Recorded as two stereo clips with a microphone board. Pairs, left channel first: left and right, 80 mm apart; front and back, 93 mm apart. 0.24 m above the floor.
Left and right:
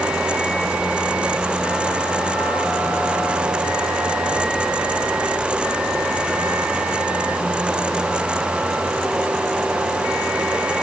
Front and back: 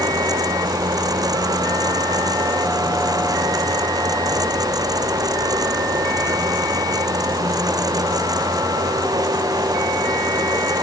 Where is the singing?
I don't hear singing.